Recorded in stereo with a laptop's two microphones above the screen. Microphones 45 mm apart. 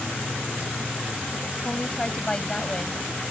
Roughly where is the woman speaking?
Centre.